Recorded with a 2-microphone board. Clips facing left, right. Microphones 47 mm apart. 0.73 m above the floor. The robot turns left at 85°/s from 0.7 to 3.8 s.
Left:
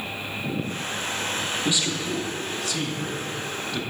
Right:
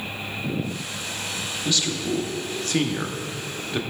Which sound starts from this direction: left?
A man speaking, at 1.6 s.